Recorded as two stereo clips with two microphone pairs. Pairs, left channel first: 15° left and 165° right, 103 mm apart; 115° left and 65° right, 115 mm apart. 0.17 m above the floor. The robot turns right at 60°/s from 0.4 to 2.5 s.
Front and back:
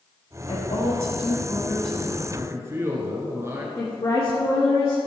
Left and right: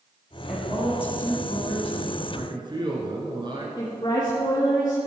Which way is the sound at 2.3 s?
115° right.